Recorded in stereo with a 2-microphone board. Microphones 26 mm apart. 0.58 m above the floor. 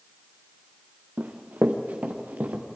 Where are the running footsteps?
75° right (ahead or behind), 2.5 m.